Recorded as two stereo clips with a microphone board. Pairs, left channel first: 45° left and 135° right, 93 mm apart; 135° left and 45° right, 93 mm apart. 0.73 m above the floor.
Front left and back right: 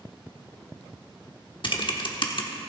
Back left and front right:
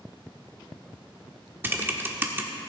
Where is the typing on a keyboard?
20° left, 1.2 m.